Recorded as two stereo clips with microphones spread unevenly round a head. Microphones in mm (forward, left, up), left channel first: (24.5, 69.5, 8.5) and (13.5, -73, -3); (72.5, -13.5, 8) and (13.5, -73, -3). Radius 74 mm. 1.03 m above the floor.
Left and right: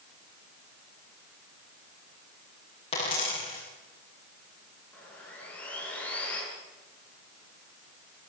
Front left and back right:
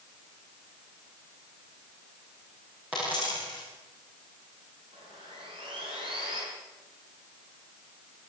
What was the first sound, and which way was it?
A dropped coin, 140° left.